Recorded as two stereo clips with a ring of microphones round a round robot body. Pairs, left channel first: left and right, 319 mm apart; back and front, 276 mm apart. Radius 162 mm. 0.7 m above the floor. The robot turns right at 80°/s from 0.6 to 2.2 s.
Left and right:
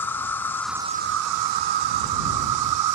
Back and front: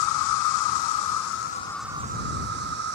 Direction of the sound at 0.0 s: 175° left.